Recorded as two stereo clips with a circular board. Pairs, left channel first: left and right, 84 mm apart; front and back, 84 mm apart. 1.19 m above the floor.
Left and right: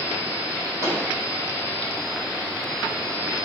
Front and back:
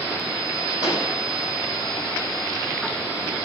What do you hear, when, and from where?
0.8 s a pop: 35° right, 6 m